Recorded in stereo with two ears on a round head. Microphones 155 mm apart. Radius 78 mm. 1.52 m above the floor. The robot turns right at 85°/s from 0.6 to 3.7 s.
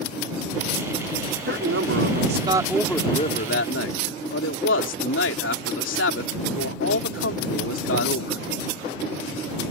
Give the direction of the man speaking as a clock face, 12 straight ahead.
4 o'clock.